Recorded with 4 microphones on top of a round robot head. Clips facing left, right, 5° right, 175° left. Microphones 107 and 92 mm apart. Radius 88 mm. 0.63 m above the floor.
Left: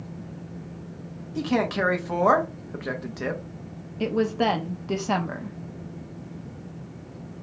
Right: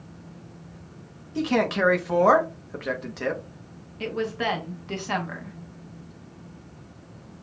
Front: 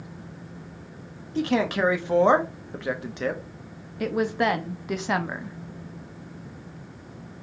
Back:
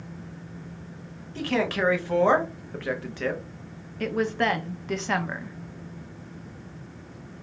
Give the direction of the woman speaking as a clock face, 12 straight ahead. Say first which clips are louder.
Left 5 dB, front 1 dB; 10 o'clock.